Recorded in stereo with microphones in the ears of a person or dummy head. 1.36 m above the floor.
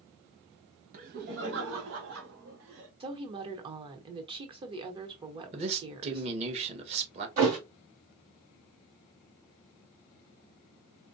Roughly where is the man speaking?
Right.